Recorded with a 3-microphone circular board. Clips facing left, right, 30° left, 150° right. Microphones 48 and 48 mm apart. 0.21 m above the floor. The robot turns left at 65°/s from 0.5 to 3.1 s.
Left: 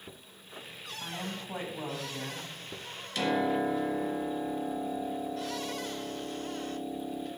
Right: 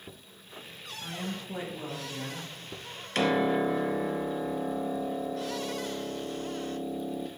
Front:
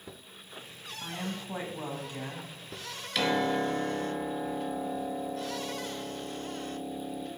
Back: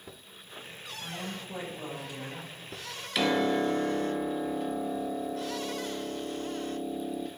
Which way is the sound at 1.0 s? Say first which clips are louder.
Right 2 dB, front 2 dB; 125° left.